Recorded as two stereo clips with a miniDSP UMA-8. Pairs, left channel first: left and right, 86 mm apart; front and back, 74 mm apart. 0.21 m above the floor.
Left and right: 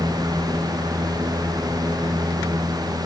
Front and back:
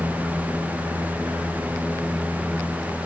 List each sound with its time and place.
Only background noise.